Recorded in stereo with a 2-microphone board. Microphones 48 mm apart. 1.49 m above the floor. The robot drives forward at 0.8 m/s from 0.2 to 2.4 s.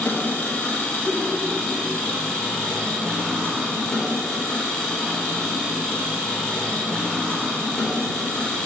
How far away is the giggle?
About 2.5 m.